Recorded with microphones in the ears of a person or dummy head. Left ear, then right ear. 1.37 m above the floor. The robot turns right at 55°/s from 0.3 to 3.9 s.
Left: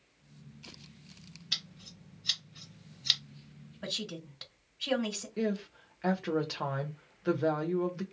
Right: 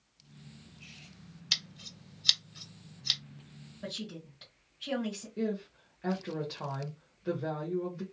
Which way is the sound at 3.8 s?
40° left (ahead or behind).